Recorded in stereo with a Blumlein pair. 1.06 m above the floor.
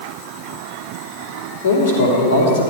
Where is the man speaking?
55° left, 3.5 m.